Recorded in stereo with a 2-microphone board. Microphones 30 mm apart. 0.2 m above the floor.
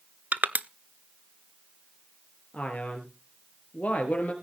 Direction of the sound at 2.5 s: 50° left (ahead or behind).